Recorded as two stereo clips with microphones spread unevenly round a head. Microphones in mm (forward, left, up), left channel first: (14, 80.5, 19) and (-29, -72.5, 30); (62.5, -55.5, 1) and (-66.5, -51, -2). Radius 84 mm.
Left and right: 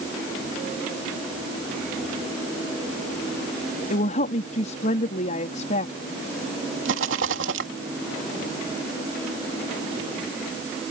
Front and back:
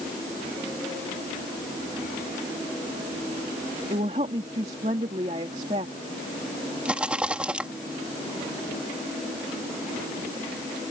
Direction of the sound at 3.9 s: 120° left.